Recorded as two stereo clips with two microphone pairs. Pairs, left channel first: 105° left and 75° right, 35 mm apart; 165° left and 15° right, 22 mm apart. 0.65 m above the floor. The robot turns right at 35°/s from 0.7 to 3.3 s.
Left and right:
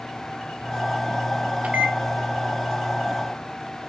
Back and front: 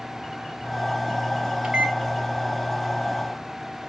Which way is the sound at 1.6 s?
50° right.